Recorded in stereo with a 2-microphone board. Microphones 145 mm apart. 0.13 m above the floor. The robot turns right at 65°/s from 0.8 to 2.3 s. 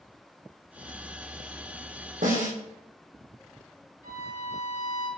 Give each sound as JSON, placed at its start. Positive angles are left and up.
{"t": 2.2, "sound": "a snare drum", "side_deg": -65, "distance_m": 3.0}
{"t": 4.0, "sound": "a violin", "side_deg": -45, "distance_m": 3.0}